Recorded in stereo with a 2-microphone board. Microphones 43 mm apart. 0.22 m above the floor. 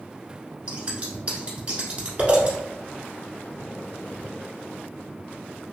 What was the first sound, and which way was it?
Scissors, 30° right (ahead or behind).